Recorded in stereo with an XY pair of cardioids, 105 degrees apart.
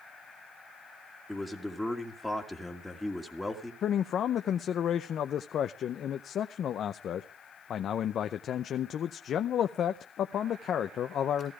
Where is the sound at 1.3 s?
5° left, 2.0 m.